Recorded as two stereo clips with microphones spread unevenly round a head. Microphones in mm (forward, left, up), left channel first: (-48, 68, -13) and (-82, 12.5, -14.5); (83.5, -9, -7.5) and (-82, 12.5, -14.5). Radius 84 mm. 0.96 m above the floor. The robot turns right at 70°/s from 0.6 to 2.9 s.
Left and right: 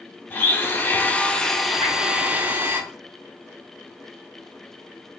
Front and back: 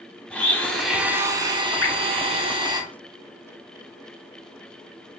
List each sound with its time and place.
0.3 s a blender: 65° left, 0.6 m; by 2.8 s 140° right, 0.6 m
1.8 s dripping: 10° left, 0.7 m; by 2.0 s 20° left, 0.7 m